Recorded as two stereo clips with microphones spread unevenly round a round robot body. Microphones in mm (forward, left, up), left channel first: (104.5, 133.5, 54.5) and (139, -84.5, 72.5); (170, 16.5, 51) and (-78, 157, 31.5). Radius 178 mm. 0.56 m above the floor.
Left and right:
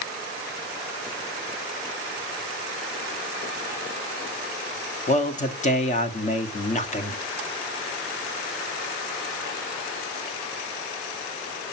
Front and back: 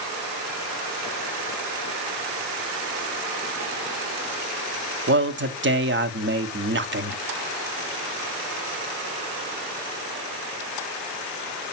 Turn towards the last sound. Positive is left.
turn(degrees=130)